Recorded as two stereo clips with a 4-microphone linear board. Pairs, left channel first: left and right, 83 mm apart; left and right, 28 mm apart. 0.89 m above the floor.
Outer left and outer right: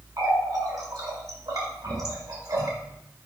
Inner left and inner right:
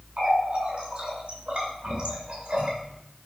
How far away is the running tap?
About 2 m.